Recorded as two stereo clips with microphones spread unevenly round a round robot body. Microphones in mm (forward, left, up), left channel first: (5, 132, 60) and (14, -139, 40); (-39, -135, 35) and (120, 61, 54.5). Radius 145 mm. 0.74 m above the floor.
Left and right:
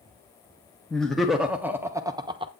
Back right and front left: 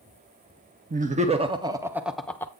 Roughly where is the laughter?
Ahead.